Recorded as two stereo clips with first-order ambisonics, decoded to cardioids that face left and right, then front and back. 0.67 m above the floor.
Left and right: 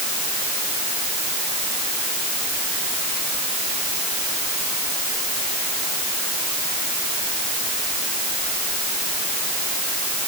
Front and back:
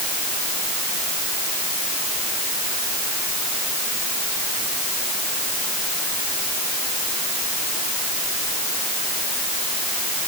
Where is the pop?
I don't hear a pop.